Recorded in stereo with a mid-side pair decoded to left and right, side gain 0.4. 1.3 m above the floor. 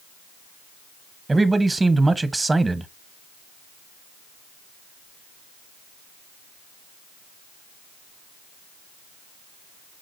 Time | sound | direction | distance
1.3 | a man speaking | 25° right | 0.8 m